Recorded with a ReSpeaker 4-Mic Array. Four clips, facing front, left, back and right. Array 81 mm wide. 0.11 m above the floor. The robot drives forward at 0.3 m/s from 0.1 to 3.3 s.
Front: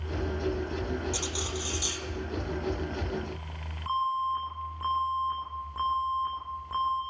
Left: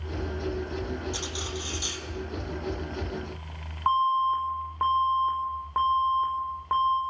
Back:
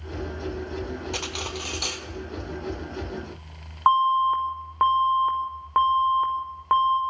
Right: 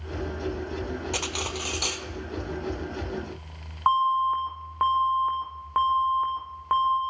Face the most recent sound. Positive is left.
turn(degrees=-165)